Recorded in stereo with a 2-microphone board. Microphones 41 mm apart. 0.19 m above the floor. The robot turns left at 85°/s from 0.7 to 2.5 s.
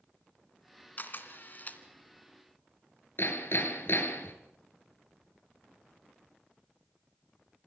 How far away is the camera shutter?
About 2 m.